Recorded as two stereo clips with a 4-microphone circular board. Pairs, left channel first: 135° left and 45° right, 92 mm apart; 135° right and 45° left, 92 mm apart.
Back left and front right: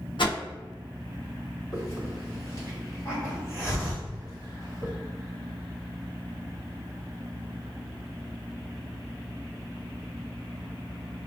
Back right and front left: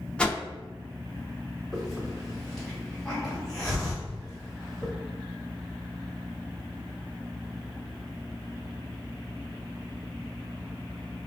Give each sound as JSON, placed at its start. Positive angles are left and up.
{"t": 0.2, "sound": "a whoosh", "azimuth_deg": 145, "distance_m": 0.6}
{"t": 1.7, "sound": "a hiss", "azimuth_deg": 140, "distance_m": 1.3}